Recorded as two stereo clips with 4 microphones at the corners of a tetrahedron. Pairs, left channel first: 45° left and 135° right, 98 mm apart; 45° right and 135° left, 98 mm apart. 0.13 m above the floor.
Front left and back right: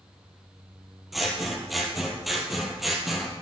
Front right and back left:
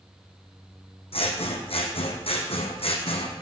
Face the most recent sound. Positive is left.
turn(degrees=-45)